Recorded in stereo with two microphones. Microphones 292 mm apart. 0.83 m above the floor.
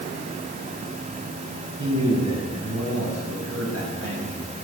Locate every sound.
1.8 s a man speaking: 70° right (ahead or behind), 8 m; by 4.5 s 50° right (ahead or behind), 5.5 m